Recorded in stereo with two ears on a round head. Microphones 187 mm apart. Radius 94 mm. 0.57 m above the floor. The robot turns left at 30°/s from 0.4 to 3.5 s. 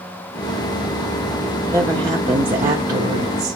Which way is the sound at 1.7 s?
10° right.